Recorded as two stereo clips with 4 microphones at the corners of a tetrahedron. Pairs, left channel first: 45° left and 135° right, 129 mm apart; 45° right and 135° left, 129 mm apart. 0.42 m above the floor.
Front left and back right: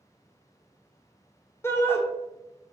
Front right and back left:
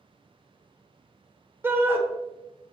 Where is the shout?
95° left, 0.8 m.